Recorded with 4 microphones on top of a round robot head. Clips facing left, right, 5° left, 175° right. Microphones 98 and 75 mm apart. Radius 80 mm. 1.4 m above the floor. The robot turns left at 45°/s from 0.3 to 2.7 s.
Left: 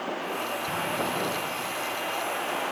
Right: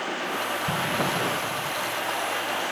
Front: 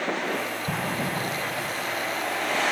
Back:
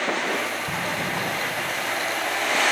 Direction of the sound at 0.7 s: 40° right.